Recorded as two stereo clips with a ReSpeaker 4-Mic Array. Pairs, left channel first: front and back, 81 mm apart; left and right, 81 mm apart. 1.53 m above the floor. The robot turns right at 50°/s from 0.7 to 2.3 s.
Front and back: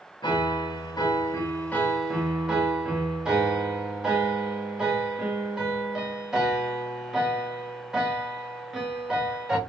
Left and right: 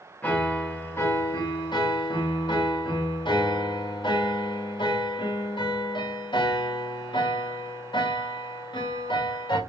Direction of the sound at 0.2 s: 20° left.